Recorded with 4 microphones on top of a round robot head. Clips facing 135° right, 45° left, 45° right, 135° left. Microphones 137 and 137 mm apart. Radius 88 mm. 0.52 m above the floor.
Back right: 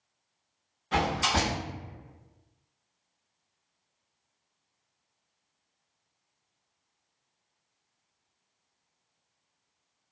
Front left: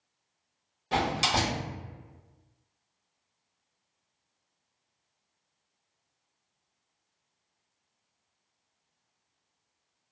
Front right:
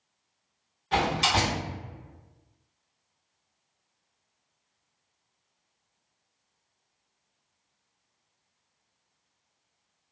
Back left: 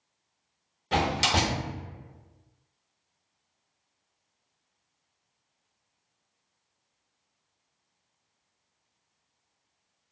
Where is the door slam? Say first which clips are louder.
Even, front right 1 dB; 95° left, 1.2 m.